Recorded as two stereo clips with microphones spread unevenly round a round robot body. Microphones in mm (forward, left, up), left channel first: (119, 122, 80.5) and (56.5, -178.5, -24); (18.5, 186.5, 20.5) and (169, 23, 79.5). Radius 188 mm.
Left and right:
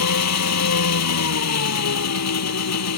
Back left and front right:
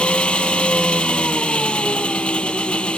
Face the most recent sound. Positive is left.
turn(degrees=45)